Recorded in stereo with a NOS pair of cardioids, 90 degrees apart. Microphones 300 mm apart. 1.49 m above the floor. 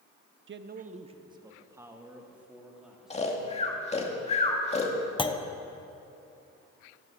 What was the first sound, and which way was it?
A man speaking, 40° right.